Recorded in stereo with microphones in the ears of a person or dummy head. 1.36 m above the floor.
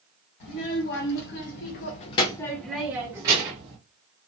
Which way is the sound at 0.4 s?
60° left (ahead or behind).